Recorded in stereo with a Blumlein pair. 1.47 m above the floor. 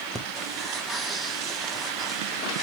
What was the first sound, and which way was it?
Breathing, 15° right.